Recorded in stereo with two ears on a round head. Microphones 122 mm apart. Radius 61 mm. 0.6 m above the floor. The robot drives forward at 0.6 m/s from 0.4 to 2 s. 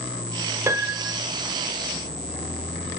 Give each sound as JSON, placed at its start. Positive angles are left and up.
{"t": 0.7, "sound": "a piano", "side_deg": -20, "distance_m": 1.4}